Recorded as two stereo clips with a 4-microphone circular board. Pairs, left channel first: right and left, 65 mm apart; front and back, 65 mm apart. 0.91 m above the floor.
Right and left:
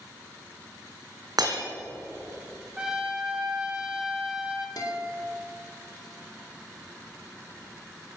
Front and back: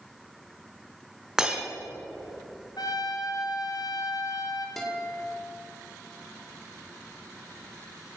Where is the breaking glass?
100° left, 3.5 m.